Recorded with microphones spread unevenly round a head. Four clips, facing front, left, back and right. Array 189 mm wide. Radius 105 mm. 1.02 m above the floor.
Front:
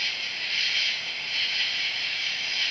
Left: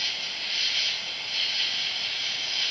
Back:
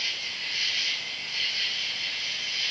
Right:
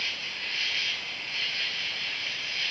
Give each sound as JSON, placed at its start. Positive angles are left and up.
{"t": 0.0, "sound": "an insect", "azimuth_deg": 50, "distance_m": 4.0}